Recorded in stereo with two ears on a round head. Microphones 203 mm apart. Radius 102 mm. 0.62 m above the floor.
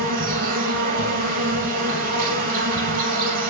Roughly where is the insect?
Right.